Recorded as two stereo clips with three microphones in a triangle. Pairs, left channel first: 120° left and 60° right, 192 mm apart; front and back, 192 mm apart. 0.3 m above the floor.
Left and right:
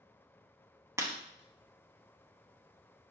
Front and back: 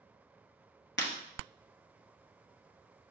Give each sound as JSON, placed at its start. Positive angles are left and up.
{"t": 1.0, "sound": "breaking glass", "azimuth_deg": 15, "distance_m": 1.0}